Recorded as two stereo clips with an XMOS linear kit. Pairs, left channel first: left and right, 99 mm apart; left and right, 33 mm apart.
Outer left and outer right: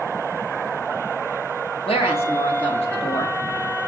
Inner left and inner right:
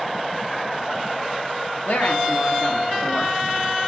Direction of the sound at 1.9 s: 75° left (ahead or behind).